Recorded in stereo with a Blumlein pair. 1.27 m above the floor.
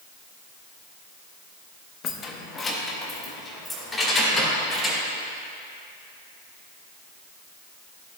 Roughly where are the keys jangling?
Ahead left.